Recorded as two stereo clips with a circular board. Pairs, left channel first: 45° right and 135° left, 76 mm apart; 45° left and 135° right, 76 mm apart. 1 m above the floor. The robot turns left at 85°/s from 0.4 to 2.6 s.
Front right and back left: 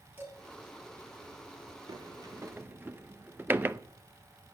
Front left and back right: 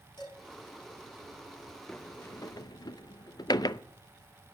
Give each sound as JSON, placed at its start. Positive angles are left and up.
{"t": 0.2, "sound": "dishes clattering", "azimuth_deg": 70, "distance_m": 5.5}
{"t": 1.9, "sound": "a sliding door", "azimuth_deg": 130, "distance_m": 0.5}